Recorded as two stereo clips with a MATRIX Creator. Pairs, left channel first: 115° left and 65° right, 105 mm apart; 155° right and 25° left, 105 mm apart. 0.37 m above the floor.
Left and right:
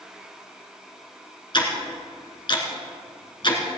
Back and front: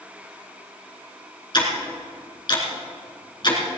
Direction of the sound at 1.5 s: 155° left.